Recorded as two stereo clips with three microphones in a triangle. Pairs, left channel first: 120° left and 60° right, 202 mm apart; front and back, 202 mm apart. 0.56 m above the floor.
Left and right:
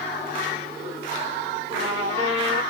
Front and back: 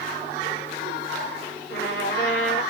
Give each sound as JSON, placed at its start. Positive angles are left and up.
{"t": 1.7, "sound": "a trumpet", "azimuth_deg": -5, "distance_m": 2.0}